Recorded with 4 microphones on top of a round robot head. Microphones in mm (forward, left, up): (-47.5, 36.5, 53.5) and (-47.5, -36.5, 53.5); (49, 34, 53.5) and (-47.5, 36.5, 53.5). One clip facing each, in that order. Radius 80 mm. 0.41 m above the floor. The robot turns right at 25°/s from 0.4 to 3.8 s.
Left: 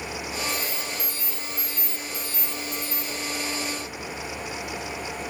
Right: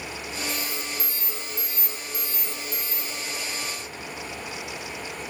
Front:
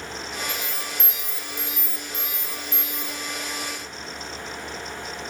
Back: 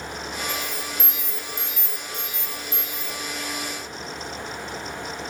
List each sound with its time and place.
0.5 s an alarm: 100° right, 1.2 m; by 3.2 s 35° right, 1.2 m